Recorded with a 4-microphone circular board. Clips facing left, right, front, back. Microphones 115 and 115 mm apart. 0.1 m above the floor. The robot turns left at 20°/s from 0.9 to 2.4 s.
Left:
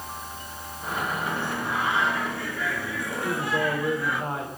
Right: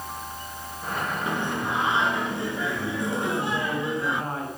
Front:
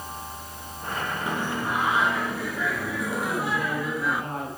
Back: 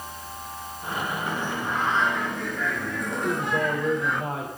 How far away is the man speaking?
About 10 m.